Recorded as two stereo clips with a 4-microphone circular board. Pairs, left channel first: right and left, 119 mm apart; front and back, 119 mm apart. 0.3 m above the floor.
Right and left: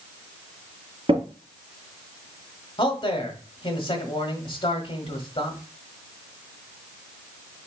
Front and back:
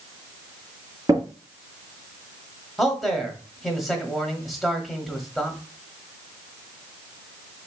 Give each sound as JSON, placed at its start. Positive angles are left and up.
{"t": 1.1, "sound": "tapping", "azimuth_deg": 125, "distance_m": 2.5}
{"t": 2.8, "sound": "a man speaking", "azimuth_deg": -90, "distance_m": 1.3}